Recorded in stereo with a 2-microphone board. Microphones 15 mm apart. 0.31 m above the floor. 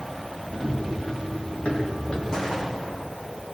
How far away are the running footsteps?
About 8 m.